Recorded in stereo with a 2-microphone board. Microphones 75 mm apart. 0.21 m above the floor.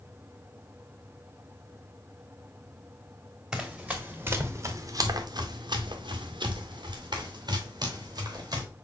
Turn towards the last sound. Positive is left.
turn(degrees=-55)  # may be behind; listen again after turning